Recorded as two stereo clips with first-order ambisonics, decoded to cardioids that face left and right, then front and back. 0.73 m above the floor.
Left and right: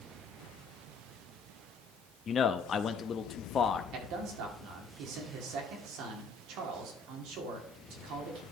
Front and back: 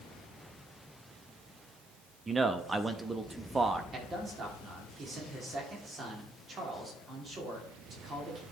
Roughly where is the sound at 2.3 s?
Behind left.